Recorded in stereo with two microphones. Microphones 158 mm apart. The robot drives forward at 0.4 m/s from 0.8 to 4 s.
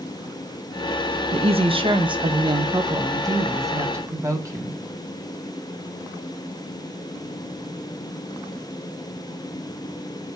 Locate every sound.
1.3 s a woman speaking: 40° right (ahead or behind), 0.7 m; by 4.8 s 20° right (ahead or behind), 1.4 m